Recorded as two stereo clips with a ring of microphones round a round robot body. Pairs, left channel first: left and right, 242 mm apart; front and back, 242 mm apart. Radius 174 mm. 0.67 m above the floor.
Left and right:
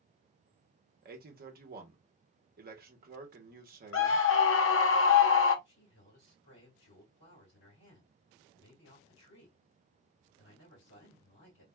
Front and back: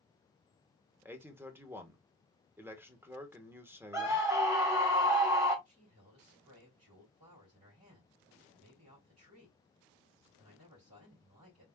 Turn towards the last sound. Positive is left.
turn(degrees=130)